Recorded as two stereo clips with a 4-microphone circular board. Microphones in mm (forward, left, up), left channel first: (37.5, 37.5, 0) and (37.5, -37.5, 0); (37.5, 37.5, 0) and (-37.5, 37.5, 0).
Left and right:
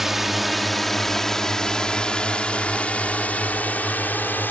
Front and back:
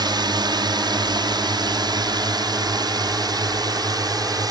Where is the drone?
175° right; by 4.5 s 155° left.